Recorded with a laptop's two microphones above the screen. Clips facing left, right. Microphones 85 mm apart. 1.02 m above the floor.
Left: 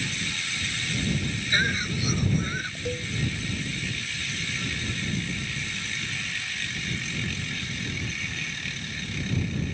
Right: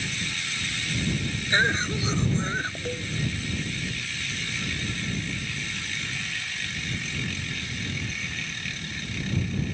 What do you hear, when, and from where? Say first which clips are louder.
1.5 s a cough: right 4 dB; 25° right (ahead or behind)
2.9 s a cowbell: left 1 dB; 5° left (ahead or behind)